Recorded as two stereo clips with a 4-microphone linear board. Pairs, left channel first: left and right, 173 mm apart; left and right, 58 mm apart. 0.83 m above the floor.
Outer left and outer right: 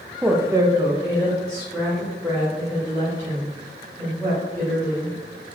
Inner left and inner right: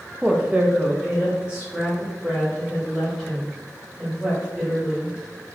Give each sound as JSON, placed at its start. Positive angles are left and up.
{"t": 0.2, "sound": "a woman speaking", "side_deg": -10, "distance_m": 0.6}